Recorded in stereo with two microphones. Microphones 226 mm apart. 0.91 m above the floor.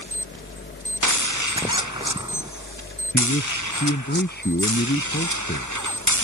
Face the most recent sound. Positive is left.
turn(degrees=45)  # may be behind; listen again after turning